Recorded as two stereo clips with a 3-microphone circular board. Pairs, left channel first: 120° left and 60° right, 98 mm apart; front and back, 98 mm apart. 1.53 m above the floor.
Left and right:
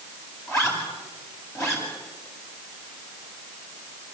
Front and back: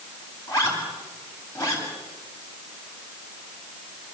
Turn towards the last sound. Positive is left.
turn(degrees=55)